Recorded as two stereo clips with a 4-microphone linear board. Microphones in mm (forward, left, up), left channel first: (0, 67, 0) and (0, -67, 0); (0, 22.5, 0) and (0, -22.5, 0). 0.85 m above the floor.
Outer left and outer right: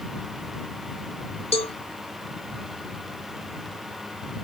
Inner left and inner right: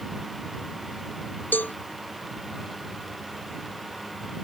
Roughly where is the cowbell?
Left.